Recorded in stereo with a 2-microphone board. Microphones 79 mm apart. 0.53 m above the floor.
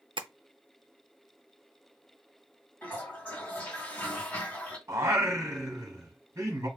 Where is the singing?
35° right (ahead or behind), 1.4 m.